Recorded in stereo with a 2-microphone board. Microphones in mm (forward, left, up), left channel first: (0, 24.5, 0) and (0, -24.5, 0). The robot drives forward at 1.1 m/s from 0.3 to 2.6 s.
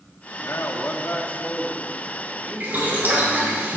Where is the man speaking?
65° left (ahead or behind), 0.9 m; by 3.5 s 20° left (ahead or behind), 2.5 m.